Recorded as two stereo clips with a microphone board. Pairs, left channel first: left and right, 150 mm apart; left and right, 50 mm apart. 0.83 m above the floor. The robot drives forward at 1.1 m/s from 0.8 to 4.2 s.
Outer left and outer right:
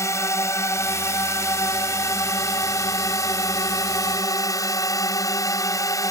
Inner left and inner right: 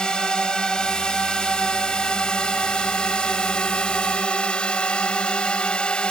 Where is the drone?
20° left (ahead or behind).